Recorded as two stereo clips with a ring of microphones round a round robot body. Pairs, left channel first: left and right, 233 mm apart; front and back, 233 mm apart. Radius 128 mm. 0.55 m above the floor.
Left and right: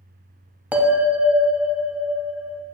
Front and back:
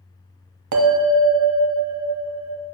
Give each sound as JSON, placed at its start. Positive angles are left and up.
{"t": 0.7, "sound": "a bell", "azimuth_deg": -175, "distance_m": 1.0}